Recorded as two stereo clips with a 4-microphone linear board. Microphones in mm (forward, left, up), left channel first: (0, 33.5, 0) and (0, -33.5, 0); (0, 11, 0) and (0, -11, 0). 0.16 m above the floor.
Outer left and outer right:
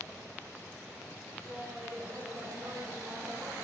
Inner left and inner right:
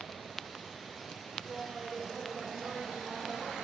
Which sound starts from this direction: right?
Laughter, at 1.4 s.